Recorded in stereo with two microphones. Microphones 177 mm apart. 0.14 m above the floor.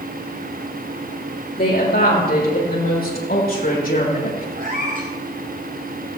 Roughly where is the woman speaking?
Left.